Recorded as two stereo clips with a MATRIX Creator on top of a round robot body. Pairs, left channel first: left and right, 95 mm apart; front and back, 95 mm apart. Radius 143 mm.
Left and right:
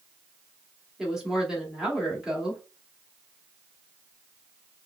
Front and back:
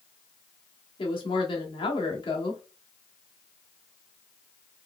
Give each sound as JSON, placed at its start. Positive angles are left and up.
{"t": 1.0, "sound": "a woman speaking", "azimuth_deg": -5, "distance_m": 1.7}